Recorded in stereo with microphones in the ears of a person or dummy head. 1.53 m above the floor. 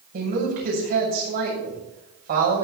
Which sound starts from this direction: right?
A woman speaking, at 0.1 s.